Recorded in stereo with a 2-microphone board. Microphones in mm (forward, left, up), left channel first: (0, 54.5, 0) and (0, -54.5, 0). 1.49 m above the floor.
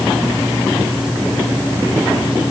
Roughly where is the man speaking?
No man speaking in this recording.